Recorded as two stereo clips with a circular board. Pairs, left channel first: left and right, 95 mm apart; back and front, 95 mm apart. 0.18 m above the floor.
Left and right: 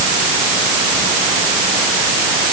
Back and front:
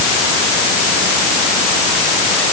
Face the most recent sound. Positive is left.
No sound to turn to.